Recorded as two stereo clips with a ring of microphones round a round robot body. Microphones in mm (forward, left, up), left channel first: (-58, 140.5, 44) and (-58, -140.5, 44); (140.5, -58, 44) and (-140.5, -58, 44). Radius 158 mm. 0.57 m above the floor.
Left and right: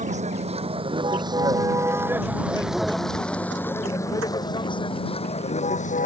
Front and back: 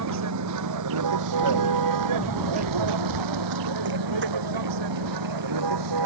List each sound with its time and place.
0.0 s a vehicle: 155° right; by 6.1 s 155° left
2.2 s running footsteps: 90° left; by 5.9 s 125° right